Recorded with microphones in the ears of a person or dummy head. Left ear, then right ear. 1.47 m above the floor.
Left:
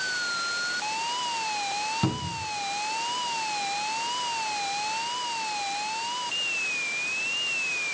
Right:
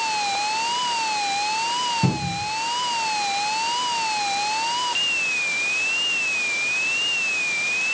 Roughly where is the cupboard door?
Left.